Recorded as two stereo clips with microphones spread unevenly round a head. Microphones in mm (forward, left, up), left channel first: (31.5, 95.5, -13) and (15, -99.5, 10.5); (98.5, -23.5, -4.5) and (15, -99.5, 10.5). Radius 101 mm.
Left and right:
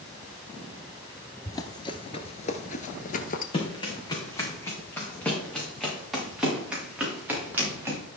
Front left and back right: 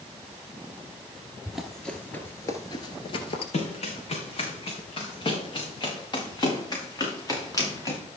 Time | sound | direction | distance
1.4 | running footsteps | 160° left | 1.2 m
3.5 | running footsteps | 20° left | 4 m